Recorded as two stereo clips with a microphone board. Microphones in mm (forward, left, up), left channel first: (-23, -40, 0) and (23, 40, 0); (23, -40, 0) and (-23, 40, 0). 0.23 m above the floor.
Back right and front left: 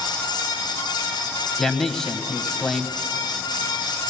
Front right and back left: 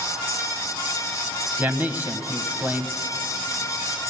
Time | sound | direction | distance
1.6 | a man speaking | 160° left | 1.0 m